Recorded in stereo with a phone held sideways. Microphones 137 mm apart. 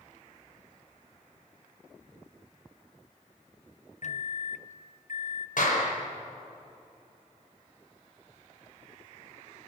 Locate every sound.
4.0 s a microwave: 60° left (ahead or behind), 0.6 m
5.6 s a clap: 80° left, 5 m